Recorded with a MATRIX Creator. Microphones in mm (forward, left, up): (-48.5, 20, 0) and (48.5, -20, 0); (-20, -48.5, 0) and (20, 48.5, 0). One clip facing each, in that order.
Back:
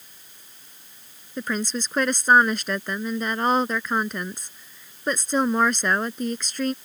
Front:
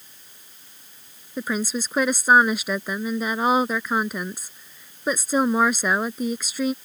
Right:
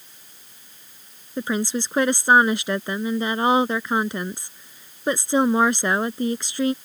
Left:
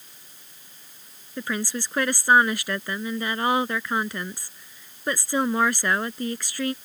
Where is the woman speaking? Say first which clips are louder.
Front 1 dB, right 5 dB; 95° right.